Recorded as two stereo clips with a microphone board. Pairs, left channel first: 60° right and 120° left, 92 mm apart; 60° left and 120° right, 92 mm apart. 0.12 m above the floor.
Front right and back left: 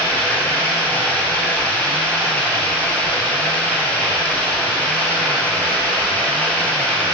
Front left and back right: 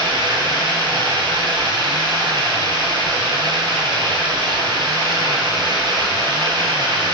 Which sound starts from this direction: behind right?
Running water, at 0.0 s.